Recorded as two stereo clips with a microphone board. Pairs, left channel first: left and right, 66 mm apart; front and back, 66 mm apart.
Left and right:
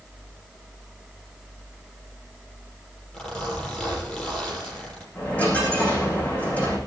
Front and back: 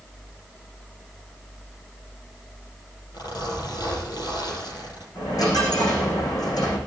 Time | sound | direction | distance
3.1 | a zipper | 15° left | 6.5 m
5.2 | a dropped coin | 25° left | 7 m